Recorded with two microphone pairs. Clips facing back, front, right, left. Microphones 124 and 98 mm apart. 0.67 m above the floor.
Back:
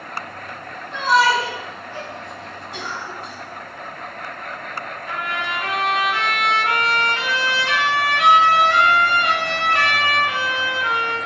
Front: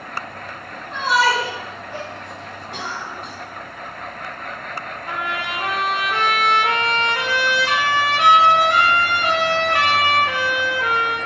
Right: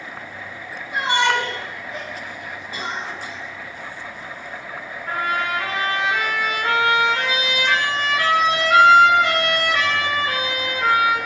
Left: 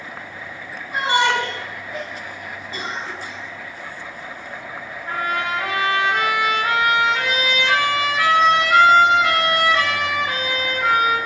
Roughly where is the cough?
Ahead.